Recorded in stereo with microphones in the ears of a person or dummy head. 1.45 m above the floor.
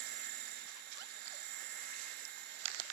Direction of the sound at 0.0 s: 50° right (ahead or behind).